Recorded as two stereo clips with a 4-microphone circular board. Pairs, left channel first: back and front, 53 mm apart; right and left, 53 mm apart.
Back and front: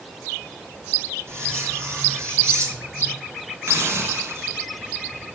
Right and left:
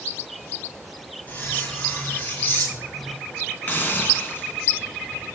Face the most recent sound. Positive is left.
turn(degrees=-35)